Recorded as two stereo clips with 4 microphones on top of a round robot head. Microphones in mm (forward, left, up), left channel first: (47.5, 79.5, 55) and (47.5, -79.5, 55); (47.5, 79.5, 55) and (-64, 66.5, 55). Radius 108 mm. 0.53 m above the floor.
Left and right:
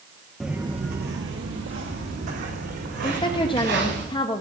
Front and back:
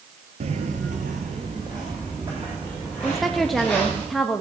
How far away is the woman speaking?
About 0.9 m.